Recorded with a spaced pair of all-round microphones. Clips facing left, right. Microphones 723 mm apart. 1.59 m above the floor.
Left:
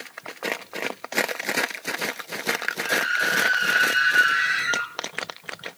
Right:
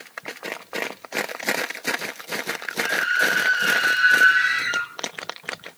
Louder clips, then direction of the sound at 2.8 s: Right 1 dB; 60° left (ahead or behind).